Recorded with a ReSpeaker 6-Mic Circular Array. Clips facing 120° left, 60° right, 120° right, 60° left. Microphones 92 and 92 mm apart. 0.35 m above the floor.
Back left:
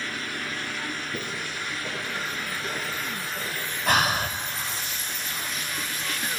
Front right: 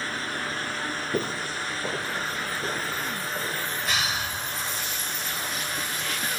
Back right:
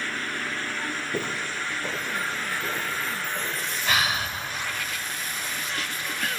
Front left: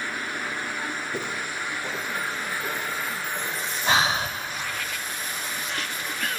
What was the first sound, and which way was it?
Footsteps, 45° right.